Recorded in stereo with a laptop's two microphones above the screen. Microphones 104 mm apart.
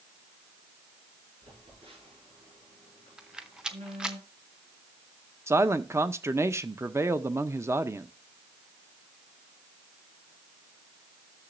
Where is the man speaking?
25° right (ahead or behind), 0.5 m.